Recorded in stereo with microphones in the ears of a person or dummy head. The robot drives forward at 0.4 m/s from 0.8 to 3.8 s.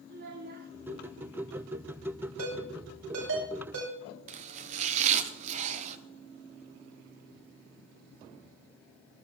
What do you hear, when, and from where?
0.1 s a child speaking: 50° right (ahead or behind), 1.8 m
2.4 s a ringtone: 80° right, 5 m; by 4.0 s 75° right (ahead or behind), 5 m
4.3 s chopping: 35° right (ahead or behind), 0.9 m